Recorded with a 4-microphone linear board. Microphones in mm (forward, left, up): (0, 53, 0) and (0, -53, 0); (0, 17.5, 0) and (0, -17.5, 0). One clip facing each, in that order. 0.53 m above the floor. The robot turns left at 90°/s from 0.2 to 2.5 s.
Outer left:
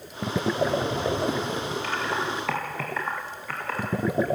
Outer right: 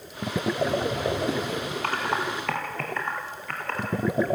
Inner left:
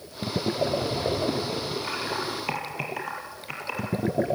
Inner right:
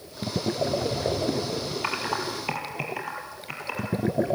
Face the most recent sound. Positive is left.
turn(degrees=5)  # may be behind; listen again after turning